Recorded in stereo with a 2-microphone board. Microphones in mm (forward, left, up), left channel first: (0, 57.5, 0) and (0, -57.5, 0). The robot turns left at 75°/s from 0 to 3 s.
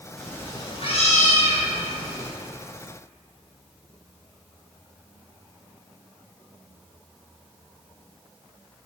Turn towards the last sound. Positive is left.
turn(degrees=-35)